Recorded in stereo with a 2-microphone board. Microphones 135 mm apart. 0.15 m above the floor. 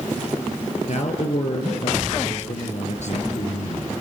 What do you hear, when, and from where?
0.9 s a man speaking: 60° left (ahead or behind), 3.5 m